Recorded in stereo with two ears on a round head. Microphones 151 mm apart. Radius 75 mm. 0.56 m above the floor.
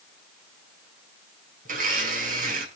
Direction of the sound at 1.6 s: 50° right (ahead or behind).